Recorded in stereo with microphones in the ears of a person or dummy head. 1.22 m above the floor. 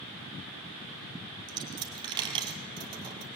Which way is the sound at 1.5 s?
25° right (ahead or behind).